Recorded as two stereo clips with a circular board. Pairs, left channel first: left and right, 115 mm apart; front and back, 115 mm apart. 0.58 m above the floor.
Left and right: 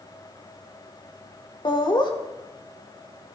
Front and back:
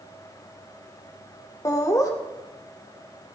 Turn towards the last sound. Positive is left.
turn(degrees=55)